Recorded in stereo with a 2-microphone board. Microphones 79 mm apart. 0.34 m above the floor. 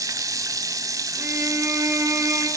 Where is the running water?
50° right (ahead or behind), 1.2 m.